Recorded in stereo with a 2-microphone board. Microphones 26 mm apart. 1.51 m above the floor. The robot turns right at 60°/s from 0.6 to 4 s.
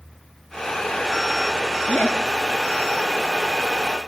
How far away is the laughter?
About 3.5 m.